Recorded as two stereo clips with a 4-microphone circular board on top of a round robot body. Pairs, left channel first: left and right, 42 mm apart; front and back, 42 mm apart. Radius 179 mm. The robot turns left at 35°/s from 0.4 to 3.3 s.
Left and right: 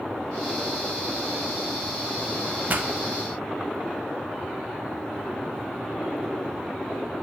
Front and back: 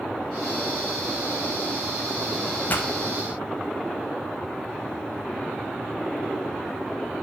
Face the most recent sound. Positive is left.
turn(degrees=-65)